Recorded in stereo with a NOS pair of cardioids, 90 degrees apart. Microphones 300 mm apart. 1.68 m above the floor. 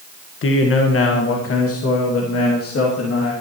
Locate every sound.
0.4 s a man speaking: 45° left, 1.7 m; by 3.3 s 60° left, 3 m